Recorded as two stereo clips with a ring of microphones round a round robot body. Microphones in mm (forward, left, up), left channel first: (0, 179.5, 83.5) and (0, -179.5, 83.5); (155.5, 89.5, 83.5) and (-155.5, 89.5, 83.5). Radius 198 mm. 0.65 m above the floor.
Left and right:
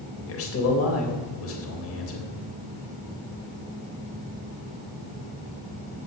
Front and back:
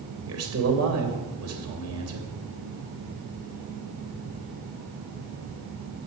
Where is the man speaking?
140° left, 3.5 m.